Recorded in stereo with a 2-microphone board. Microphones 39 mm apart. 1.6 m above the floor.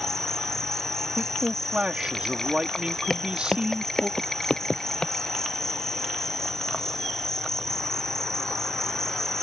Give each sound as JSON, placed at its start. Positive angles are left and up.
{"t": 0.0, "sound": "an insect", "side_deg": 10}
{"t": 1.2, "sound": "a man speaking", "side_deg": -25}
{"t": 3.1, "sound": "footsteps", "side_deg": 10}